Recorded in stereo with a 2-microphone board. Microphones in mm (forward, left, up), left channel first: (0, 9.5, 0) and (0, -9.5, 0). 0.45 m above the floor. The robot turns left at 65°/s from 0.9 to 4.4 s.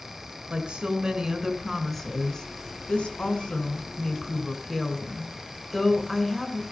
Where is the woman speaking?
130° right, 4.5 m; by 6.6 s 5° left, 4.5 m.